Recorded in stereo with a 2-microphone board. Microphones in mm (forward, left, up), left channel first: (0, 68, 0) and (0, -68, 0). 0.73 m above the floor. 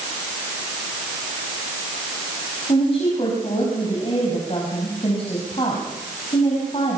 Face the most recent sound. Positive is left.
turn(degrees=45)  # may be behind; listen again after turning